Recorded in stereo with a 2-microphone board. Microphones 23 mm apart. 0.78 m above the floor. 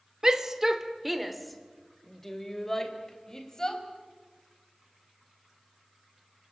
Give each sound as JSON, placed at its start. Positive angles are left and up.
{"t": 0.2, "sound": "a shout", "side_deg": -30, "distance_m": 2.0}